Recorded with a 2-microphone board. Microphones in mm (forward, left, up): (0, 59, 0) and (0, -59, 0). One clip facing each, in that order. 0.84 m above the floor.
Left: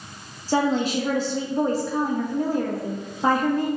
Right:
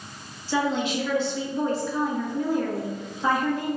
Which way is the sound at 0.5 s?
40° left (ahead or behind).